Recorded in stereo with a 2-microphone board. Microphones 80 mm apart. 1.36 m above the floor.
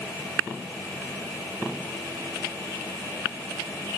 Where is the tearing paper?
I don't hear tearing paper.